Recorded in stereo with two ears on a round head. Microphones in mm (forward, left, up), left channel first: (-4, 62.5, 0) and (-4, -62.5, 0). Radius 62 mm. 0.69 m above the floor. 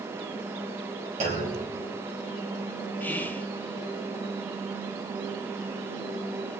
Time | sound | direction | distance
1.2 | a clunk | 50° right (ahead or behind) | 4.5 m
3.0 | whispering | 15° left (ahead or behind) | 0.6 m